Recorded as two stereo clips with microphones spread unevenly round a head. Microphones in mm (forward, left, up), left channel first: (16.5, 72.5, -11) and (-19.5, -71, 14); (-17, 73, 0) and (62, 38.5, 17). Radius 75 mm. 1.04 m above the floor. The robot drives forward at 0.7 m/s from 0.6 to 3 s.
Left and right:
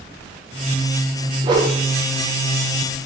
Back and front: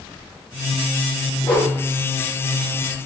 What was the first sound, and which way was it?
A whoosh, 160° right.